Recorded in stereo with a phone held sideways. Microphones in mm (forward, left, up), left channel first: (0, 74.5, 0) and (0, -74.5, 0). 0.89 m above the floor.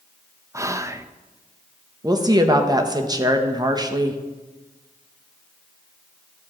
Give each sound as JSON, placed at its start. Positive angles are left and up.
{"t": 0.5, "sound": "whispering", "side_deg": -20, "distance_m": 0.5}
{"t": 2.0, "sound": "a woman speaking", "side_deg": -25, "distance_m": 0.9}